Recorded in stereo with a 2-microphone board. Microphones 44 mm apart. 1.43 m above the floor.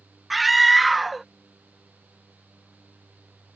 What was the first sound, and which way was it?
A scream, centre (ahead or behind).